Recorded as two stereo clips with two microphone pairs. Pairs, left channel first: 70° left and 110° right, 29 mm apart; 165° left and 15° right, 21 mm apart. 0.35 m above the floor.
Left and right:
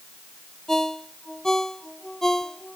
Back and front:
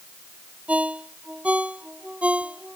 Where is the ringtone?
5° right.